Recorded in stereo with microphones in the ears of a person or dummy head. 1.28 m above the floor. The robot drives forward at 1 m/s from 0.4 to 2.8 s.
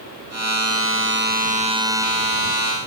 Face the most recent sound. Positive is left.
No sound to turn to.